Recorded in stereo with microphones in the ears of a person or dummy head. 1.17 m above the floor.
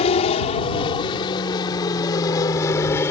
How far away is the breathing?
No breathing in this recording.